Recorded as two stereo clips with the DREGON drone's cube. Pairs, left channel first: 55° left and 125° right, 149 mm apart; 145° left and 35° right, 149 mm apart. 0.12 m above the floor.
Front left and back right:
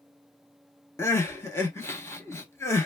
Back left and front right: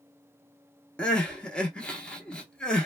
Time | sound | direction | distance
1.0 | crying | 75° left | 0.8 m